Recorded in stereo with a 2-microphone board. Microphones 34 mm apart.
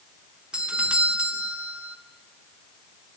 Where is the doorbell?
30° right (ahead or behind), 1.5 m.